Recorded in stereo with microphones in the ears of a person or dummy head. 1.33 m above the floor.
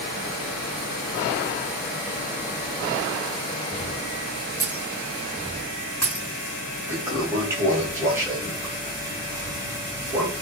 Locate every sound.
4.6 s breaking glass: 10° left (ahead or behind), 3 m
6.9 s a toilet flushing: 20° right (ahead or behind), 2 m